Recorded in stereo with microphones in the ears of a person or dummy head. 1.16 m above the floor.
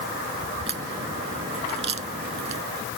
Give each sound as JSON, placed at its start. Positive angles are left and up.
{"t": 0.7, "sound": "a crack", "side_deg": -35}